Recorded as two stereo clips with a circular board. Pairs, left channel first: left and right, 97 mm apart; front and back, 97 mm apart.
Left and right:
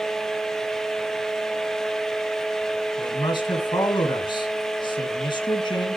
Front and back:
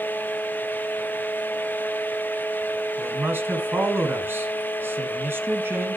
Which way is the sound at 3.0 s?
115° left.